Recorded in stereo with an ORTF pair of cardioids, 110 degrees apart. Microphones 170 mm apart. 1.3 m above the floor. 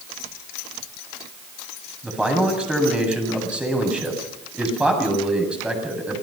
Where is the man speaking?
5° right, 8 m.